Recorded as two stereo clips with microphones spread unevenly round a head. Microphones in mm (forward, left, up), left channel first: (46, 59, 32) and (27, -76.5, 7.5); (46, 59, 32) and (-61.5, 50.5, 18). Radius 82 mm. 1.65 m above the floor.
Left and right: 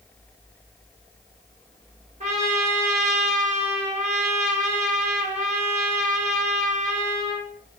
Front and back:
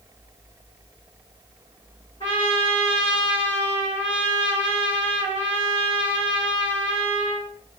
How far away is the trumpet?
About 7.5 m.